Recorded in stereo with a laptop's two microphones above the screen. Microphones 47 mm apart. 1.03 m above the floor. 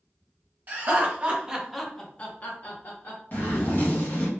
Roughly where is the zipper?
Left.